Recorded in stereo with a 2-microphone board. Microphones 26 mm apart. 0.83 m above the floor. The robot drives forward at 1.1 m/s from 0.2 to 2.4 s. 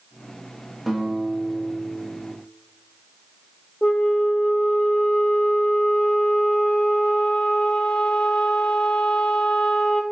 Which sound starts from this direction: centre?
A guitar, at 0.9 s.